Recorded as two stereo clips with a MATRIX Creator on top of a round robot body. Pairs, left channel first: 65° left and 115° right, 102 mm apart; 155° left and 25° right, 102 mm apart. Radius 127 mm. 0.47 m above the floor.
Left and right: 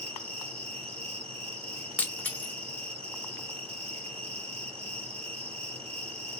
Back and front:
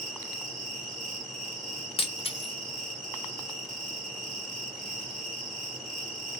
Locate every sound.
0.0 s an insect: 115° right, 2 m
2.0 s breaking glass: 145° left, 1.0 m